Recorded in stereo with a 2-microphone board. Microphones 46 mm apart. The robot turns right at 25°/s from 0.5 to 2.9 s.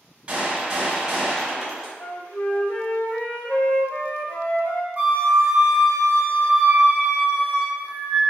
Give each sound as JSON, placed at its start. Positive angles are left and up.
{"t": 0.3, "sound": "a gunshot", "azimuth_deg": -35, "distance_m": 1.6}
{"t": 2.0, "sound": "a flute", "side_deg": 45, "distance_m": 0.5}
{"t": 5.0, "sound": "a flute", "side_deg": -35, "distance_m": 1.1}